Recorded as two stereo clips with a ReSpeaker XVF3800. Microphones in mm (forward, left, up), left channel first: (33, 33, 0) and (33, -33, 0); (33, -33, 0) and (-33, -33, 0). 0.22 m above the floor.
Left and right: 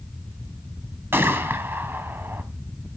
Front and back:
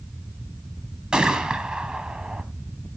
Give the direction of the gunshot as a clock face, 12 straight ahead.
4 o'clock.